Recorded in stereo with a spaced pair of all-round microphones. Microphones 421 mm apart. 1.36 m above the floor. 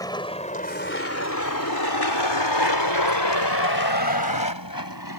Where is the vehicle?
10° left (ahead or behind); by 5.2 s 50° left (ahead or behind).